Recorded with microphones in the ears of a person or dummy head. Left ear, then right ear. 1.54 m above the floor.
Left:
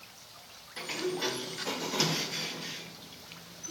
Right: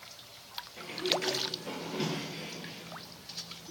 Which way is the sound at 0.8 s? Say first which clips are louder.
Right 1 dB; 45° left (ahead or behind).